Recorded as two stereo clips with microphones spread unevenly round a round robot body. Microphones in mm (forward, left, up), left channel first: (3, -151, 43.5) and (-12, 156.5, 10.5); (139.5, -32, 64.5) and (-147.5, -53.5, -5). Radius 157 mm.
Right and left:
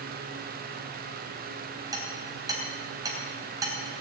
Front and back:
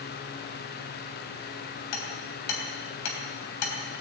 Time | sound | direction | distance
1.9 | hammering | 15° left | 3.5 m